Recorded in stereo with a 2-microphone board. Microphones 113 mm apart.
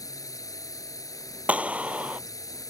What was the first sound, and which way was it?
A drone, 30° left (ahead or behind).